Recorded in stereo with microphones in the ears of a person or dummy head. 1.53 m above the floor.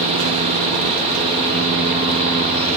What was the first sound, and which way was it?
Only background noise.